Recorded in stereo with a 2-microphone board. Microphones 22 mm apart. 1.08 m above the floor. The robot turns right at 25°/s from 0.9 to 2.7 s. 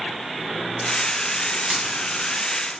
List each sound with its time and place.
1.7 s a dropped coin: 65° right (ahead or behind), 1.7 m